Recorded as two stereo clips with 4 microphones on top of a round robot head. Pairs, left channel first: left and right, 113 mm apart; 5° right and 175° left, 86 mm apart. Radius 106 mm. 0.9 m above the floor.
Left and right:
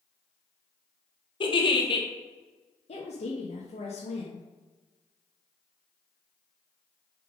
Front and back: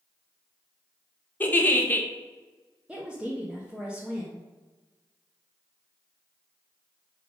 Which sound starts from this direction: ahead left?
A giggle, at 1.4 s.